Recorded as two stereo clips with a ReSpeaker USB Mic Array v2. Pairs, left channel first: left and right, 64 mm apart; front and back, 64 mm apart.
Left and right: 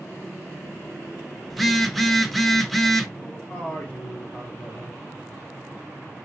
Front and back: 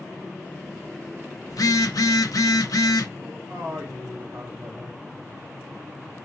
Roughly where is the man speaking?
Behind left.